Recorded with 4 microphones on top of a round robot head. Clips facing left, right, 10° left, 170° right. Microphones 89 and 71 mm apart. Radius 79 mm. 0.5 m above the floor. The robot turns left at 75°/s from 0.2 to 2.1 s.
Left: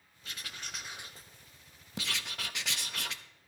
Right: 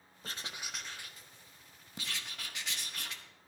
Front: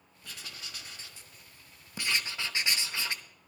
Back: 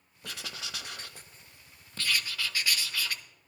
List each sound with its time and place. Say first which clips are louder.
0.2 s writing: right 2 dB, back 5 dB; 140° right, 0.7 m; by 3.2 s 80° left, 0.7 m